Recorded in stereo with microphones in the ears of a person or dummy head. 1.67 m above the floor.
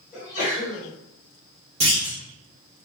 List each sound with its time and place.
0.1 s a sneeze: 45° left (ahead or behind), 1.8 m
1.8 s a clunk: 25° right (ahead or behind), 0.9 m